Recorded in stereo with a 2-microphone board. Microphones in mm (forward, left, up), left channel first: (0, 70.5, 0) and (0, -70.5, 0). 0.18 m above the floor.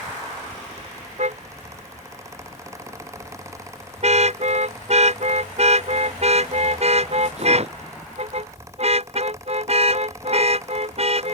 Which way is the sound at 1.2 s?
55° right (ahead or behind).